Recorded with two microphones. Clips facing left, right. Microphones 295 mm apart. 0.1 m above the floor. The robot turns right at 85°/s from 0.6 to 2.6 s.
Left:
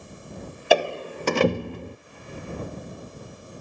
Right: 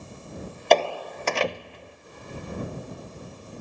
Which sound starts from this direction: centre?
A door slam, at 0.7 s.